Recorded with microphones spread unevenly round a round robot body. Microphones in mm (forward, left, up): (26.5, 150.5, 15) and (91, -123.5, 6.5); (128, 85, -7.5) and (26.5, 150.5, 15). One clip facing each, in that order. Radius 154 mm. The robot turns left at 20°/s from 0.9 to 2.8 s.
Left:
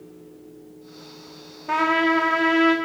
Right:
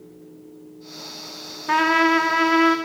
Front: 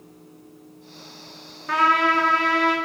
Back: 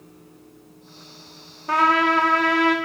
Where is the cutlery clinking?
No cutlery clinking in this recording.